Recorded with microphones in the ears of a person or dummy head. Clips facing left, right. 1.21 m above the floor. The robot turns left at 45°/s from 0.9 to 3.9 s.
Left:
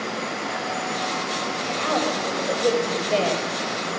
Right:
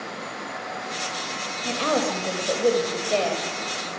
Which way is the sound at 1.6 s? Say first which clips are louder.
Right 2 dB; 125° right.